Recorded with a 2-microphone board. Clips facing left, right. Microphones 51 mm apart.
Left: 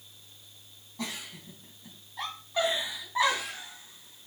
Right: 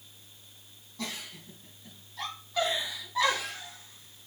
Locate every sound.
1.0 s a giggle: 15° left (ahead or behind), 4 m